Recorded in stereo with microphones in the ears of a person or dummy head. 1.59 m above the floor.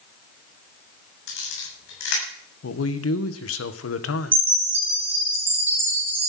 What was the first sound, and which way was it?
A camera shutter, 65° left (ahead or behind).